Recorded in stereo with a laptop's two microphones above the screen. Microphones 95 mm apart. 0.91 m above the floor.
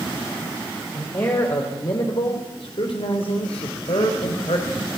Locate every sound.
0.9 s a man speaking: 30° left (ahead or behind), 3.5 m; by 4.8 s 75° left (ahead or behind), 4.5 m